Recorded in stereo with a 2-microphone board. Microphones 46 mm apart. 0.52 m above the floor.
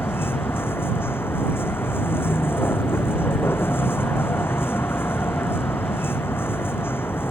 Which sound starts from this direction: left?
A vehicle, at 0.0 s.